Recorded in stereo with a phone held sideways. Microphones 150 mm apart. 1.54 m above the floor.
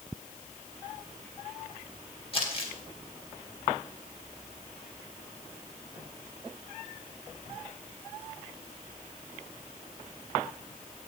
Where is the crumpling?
40° left (ahead or behind), 2.5 m.